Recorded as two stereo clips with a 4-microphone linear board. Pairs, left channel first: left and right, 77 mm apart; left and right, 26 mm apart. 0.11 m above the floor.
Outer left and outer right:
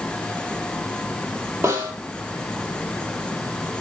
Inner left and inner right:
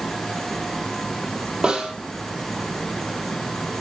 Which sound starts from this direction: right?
A snare drum, at 1.6 s.